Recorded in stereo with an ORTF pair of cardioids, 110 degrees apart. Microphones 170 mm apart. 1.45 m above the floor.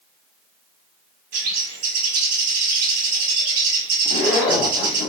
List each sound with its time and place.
1.3 s a bird: 65° right, 0.9 m
4.0 s a zipper: 70° left, 0.7 m